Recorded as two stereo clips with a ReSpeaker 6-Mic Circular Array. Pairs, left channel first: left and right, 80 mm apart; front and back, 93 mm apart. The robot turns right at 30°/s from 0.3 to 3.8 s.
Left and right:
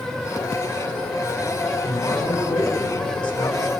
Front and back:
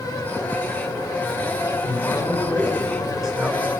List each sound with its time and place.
1.8 s a man speaking: 55° left, 5.5 m; by 3.7 s 110° left, 5.5 m